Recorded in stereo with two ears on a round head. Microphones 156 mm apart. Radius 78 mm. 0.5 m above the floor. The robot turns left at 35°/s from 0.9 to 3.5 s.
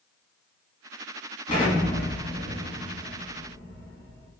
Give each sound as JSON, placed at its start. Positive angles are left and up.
{"t": 1.5, "sound": "an explosion", "side_deg": 35, "distance_m": 1.1}